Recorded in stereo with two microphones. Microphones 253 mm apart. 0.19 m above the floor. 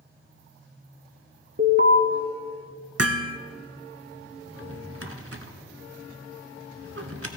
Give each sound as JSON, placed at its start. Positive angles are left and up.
{"t": 1.6, "sound": "an alarm", "side_deg": -45, "distance_m": 1.0}
{"t": 3.0, "sound": "hammering", "side_deg": -70, "distance_m": 0.8}
{"t": 4.5, "sound": "a drawer", "side_deg": -60, "distance_m": 1.0}